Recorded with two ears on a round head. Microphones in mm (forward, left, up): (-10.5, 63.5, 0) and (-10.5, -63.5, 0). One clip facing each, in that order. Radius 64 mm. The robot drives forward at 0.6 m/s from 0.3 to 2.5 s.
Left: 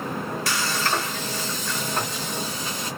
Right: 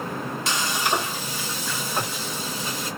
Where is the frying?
20° right (ahead or behind), 0.6 m; by 2.9 s 5° right (ahead or behind), 1.8 m.